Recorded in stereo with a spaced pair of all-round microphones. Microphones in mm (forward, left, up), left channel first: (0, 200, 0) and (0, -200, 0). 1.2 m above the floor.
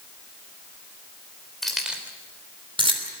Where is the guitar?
No guitar in this recording.